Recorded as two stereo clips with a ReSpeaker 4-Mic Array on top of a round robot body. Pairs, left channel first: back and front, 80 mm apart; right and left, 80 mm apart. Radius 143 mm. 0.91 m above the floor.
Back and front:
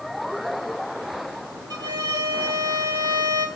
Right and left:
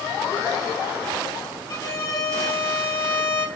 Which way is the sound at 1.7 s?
40° right.